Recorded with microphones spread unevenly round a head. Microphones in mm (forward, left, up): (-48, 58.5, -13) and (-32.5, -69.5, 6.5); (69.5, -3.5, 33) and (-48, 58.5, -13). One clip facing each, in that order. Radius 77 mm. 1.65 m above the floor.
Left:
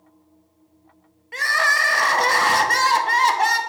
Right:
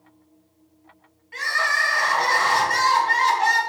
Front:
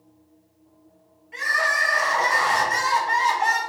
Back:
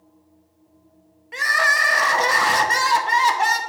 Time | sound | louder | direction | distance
1.3 | crying | left 3 dB, back 3 dB | 130° left | 0.5 m